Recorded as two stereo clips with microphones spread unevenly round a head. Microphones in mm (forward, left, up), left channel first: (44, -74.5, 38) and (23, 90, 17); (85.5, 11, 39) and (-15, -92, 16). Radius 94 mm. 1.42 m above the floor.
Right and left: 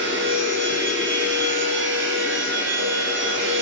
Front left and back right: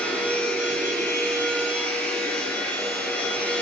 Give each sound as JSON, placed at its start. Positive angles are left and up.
{"t": 0.0, "sound": "a machine running", "azimuth_deg": 125, "distance_m": 5.0}